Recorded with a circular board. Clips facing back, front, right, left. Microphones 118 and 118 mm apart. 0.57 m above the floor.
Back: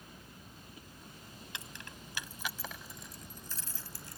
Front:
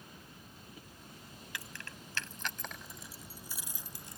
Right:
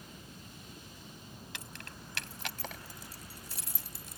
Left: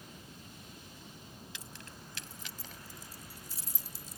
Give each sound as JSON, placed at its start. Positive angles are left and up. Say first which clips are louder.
{"t": 1.5, "sound": "keys jangling", "louder": "front 2 dB, right 2 dB", "azimuth_deg": -115}